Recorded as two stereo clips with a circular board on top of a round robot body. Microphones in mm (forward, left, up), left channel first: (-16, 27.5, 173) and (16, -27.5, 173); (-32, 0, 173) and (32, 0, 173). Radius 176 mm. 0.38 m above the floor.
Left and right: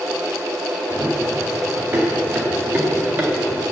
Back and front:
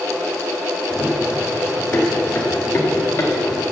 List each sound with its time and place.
0.9 s running footsteps: 110° right, 5 m; by 3.6 s 125° right, 3 m